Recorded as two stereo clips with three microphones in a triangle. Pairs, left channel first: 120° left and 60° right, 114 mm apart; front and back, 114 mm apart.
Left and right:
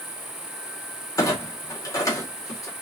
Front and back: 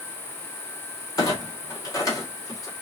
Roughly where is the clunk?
Ahead left.